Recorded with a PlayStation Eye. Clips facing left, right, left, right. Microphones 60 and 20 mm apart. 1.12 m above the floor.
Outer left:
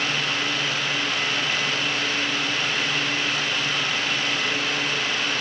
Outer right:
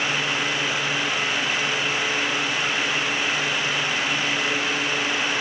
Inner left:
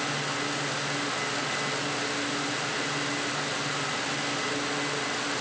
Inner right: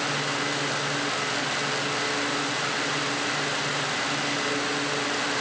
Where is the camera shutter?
No camera shutter in this recording.